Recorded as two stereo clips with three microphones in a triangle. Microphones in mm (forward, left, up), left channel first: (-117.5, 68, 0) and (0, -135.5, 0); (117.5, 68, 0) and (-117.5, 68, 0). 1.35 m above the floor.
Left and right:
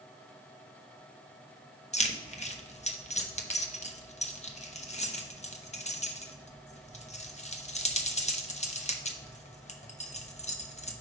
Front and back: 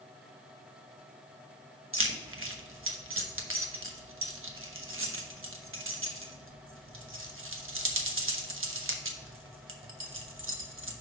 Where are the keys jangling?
Straight behind, 0.9 m.